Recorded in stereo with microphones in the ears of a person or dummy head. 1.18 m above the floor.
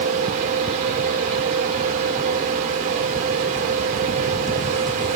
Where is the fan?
40° right (ahead or behind), 0.8 m.